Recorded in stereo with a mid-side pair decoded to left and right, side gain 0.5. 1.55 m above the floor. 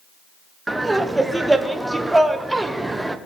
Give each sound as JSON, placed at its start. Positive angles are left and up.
{"t": 0.7, "sound": "laughter", "azimuth_deg": -10, "distance_m": 1.1}